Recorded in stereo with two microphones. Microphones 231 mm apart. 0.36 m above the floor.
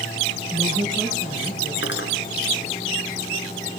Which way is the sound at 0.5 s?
Centre (ahead or behind).